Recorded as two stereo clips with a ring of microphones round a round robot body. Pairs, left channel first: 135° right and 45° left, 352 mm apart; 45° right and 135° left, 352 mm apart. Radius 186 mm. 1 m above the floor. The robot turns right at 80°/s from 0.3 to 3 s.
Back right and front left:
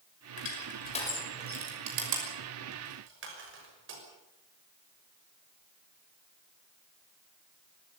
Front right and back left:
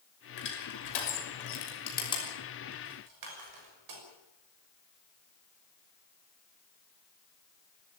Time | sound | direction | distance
0.4 | crushing | 110° right | 6 m